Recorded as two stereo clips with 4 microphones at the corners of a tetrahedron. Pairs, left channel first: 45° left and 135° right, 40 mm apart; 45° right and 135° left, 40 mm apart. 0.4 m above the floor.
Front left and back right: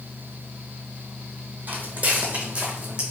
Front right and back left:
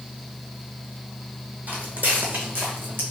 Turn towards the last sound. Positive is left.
turn(degrees=155)